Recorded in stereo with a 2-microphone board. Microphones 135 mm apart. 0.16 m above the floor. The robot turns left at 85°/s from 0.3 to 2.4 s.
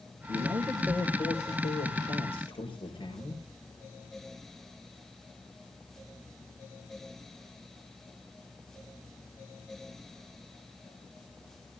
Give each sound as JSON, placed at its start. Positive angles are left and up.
{"t": 0.3, "sound": "a man speaking", "azimuth_deg": -140, "distance_m": 4.5}